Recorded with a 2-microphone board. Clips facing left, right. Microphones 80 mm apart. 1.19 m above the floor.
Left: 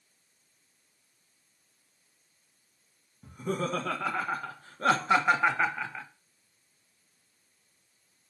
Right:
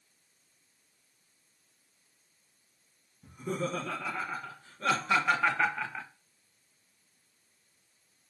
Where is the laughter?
75° left (ahead or behind), 1.7 m; by 6.1 s 5° right (ahead or behind), 1.0 m.